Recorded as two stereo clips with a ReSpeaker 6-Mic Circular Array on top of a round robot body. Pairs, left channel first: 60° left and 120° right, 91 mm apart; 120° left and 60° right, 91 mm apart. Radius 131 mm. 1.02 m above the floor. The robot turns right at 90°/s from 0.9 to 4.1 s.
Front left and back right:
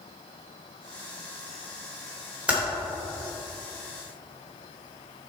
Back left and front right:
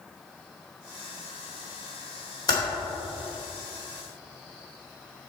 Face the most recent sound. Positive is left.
turn(degrees=-50)